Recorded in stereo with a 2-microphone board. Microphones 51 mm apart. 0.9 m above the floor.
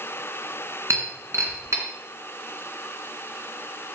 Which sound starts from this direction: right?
Breaking glass, at 0.9 s.